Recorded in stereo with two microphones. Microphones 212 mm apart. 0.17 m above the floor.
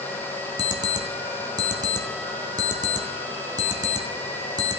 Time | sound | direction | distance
0.6 | an alarm clock | 20° right (ahead or behind) | 1.1 m